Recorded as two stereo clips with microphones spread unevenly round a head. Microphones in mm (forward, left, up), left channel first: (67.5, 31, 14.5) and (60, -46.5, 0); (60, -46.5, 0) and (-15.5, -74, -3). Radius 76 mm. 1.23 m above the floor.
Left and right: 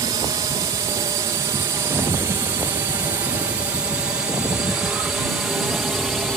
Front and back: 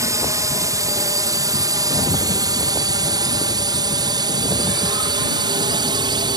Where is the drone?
125° right; by 6.4 s straight behind.